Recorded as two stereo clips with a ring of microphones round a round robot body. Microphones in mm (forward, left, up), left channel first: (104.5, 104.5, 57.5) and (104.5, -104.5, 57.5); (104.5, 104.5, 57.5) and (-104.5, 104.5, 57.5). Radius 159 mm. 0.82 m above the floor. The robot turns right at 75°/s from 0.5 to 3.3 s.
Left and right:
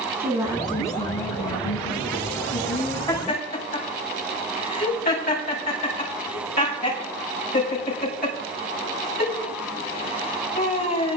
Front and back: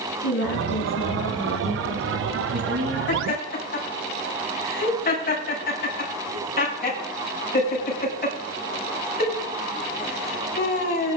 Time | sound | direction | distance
0.2 | a woman speaking | 10° right | 8 m
3.1 | laughter | 30° left | 6.5 m